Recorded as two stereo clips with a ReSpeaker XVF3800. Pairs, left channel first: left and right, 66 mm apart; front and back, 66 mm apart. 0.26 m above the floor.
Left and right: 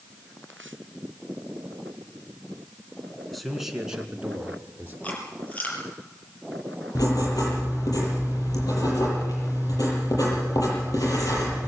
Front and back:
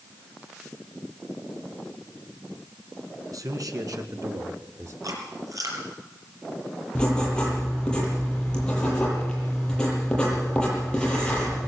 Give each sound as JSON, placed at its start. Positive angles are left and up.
{"t": 3.3, "sound": "a man speaking", "azimuth_deg": 180, "distance_m": 2.5}
{"t": 5.0, "sound": "chewing", "azimuth_deg": 155, "distance_m": 5.5}
{"t": 7.0, "sound": "writing", "azimuth_deg": 75, "distance_m": 8.5}